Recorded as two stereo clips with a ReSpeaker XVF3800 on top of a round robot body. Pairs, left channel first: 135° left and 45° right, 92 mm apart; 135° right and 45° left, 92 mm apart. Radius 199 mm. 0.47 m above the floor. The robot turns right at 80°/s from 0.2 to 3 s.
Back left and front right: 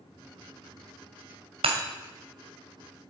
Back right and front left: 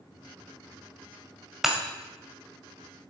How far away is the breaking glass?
About 1.9 m.